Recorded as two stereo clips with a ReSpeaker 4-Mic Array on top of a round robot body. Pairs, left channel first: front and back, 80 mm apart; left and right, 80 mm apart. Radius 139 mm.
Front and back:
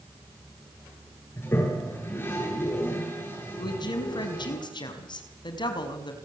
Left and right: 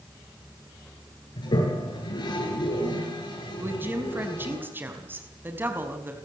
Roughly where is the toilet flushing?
Ahead left.